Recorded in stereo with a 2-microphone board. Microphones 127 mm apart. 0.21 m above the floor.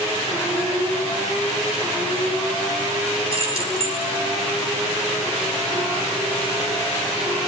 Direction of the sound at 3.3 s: 45° right (ahead or behind).